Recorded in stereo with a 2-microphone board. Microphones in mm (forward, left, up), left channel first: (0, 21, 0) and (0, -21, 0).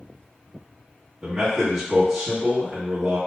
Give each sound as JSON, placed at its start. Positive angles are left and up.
{"t": 1.2, "sound": "a man speaking", "side_deg": -15, "distance_m": 1.1}